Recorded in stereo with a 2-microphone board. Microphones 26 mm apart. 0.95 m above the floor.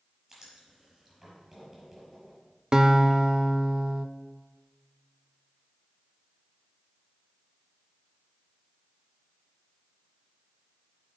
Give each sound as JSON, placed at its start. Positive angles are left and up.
{"t": 0.3, "sound": "writing", "side_deg": -10, "distance_m": 5.5}
{"t": 2.7, "sound": "a guitar", "side_deg": -30, "distance_m": 0.7}